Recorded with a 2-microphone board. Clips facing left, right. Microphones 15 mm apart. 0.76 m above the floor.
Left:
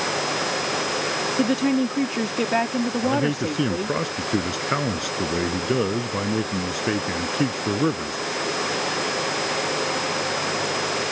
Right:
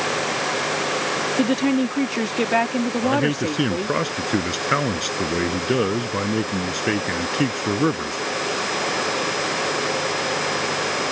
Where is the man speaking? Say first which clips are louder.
Right 3 dB; 25° right (ahead or behind).